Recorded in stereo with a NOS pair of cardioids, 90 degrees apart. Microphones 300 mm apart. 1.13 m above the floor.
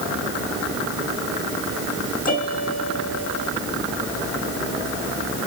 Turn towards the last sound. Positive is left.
turn(degrees=30)